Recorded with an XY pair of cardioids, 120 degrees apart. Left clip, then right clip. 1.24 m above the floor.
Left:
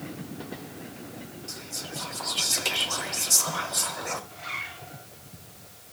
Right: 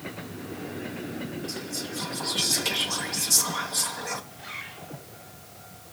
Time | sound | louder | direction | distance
1.5 | whispering | left 2 dB | 20° left | 3 m
4.3 | a zipper | left 4 dB | 60° left | 7.5 m